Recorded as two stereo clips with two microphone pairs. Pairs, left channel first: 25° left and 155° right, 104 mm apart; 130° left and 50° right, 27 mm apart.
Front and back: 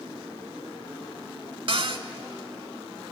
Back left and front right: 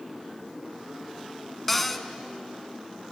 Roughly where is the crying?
No crying in this recording.